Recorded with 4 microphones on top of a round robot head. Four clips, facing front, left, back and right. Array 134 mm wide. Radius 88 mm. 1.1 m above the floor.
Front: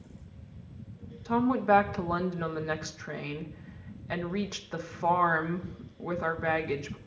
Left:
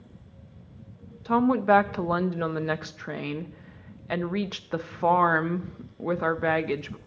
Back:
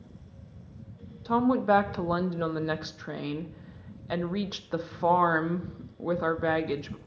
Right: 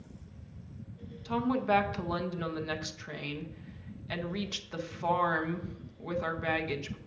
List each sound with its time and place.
1.2 s a woman speaking: 110° left, 0.7 m